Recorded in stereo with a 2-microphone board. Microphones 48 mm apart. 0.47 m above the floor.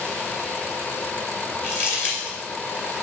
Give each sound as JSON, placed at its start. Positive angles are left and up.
{"t": 1.6, "sound": "crumpling", "side_deg": 40, "distance_m": 2.5}